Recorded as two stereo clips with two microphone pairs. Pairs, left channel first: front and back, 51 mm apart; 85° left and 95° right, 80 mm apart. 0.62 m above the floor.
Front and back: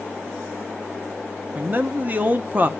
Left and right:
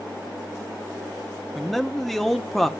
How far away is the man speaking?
About 0.7 m.